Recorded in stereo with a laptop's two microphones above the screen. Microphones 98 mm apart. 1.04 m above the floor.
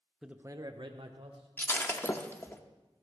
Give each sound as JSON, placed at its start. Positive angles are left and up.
{"t": 0.2, "sound": "a man speaking", "side_deg": -5, "distance_m": 0.7}
{"t": 1.6, "sound": "breaking glass", "side_deg": 25, "distance_m": 0.8}